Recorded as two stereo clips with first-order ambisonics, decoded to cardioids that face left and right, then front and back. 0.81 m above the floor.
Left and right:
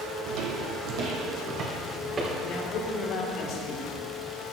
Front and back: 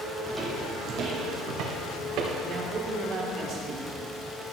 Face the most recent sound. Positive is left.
turn(degrees=130)